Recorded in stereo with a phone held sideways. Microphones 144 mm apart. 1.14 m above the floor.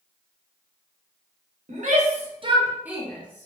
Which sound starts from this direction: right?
A shout, at 1.7 s.